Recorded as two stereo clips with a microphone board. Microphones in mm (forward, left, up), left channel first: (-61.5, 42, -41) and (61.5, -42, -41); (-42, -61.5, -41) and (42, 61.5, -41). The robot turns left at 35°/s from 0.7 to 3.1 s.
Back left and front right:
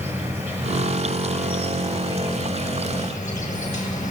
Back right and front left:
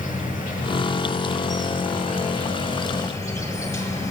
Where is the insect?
110° right, 1.8 m; by 4.1 s 170° left, 1.8 m.